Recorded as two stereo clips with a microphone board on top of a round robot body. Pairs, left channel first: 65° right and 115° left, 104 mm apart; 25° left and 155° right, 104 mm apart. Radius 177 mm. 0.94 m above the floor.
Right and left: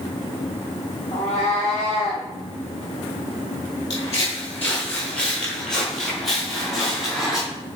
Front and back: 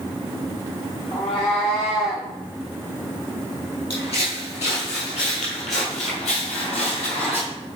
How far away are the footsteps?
About 1.1 m.